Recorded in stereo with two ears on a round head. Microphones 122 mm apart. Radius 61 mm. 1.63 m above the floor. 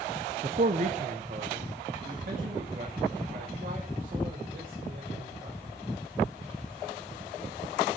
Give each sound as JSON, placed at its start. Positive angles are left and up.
{"t": 0.4, "sound": "a man speaking", "side_deg": -40, "distance_m": 0.5}